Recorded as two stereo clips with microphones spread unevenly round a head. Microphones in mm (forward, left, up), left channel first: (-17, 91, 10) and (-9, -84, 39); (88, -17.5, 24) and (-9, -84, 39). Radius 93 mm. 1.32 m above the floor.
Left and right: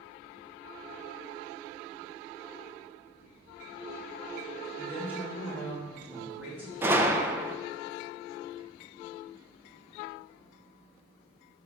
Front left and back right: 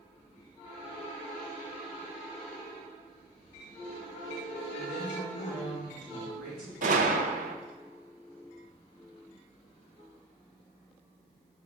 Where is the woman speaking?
170° right, 2.5 m.